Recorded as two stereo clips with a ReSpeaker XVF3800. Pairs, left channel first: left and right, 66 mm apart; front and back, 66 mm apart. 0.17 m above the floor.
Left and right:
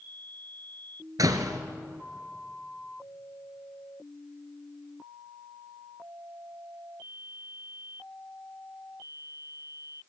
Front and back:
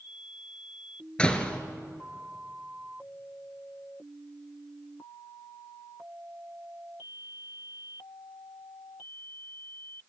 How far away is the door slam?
About 1.8 m.